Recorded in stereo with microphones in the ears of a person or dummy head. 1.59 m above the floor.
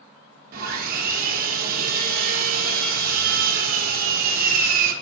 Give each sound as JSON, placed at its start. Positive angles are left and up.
{"t": 0.5, "sound": "sawing", "side_deg": -50, "distance_m": 0.7}